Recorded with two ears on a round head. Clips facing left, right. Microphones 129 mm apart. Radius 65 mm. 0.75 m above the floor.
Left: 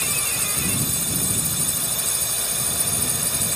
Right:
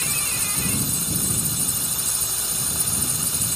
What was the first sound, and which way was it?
A drone, 50° left (ahead or behind).